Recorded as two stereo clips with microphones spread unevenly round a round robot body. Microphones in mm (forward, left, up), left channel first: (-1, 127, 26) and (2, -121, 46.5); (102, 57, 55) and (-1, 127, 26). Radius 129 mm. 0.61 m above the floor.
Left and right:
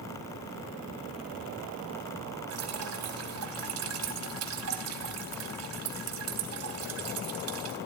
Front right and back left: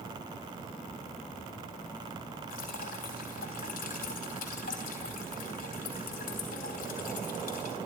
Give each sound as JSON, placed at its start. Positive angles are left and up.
{"t": 2.5, "sound": "dripping", "azimuth_deg": -60, "distance_m": 3.5}